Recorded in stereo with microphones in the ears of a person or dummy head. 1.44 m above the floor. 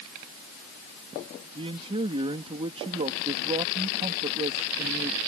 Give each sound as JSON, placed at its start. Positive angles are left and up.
{"t": 1.6, "sound": "a man speaking", "side_deg": -25}